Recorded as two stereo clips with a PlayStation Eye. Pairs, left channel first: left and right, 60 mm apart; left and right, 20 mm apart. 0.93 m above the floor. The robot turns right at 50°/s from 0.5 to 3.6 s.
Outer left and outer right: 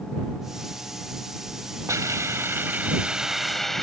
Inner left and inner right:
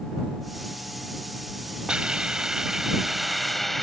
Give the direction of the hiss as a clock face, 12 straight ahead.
3 o'clock.